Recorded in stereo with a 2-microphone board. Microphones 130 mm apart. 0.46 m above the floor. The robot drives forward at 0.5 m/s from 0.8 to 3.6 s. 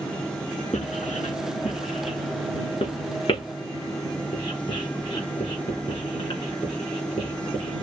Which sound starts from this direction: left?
Writing, at 0.7 s.